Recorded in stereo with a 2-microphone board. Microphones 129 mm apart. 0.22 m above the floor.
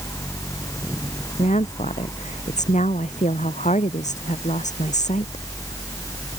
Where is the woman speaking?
65° left (ahead or behind).